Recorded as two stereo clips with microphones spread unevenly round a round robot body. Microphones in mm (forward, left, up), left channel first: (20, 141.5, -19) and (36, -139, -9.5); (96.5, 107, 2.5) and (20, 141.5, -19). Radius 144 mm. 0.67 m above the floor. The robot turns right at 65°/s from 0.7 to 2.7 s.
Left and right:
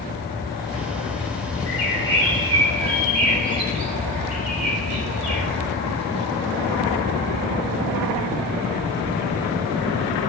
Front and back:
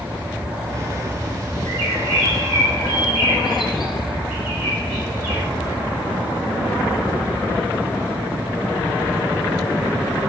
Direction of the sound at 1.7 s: 175° left.